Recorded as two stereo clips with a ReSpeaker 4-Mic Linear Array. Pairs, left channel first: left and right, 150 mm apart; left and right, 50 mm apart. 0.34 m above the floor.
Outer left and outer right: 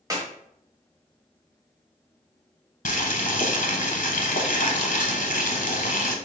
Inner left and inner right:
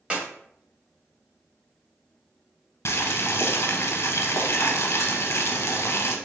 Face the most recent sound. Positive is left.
turn(degrees=65)  # may be behind; listen again after turning